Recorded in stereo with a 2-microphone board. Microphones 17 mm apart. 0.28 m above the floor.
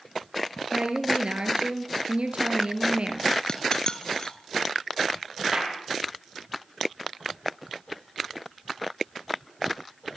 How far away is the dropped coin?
About 2.5 m.